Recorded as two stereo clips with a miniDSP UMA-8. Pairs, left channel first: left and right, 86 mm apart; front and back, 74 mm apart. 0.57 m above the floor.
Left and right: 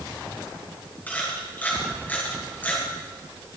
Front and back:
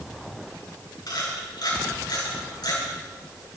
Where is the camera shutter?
20° left, 6.5 m.